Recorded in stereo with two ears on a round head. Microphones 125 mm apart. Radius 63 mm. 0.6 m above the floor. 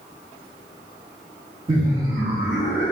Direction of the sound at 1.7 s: 35° right (ahead or behind).